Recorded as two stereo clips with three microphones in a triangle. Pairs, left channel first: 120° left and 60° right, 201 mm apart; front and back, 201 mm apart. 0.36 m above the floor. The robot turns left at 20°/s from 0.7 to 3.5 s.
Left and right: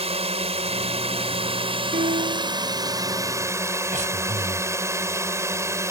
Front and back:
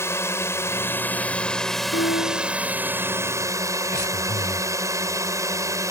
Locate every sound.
0.0 s a drone: 65° right; by 5.9 s 120° right
1.9 s a piano: 10° right; by 2.6 s 25° right
3.9 s breathing: 10° right